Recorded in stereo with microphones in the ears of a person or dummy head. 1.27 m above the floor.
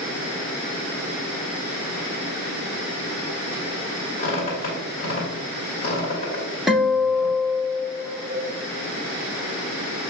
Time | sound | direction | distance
4.2 | a squeak | 45° left (ahead or behind) | 2 m
6.7 | a guitar | 5° right (ahead or behind) | 1.3 m